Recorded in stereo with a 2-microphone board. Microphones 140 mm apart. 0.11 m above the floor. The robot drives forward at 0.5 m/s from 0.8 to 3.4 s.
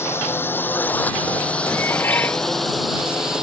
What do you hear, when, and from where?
0.0 s a drone: 20° left (ahead or behind); by 3.4 s 5° right (ahead or behind)
1.7 s dishes clattering: 15° left (ahead or behind)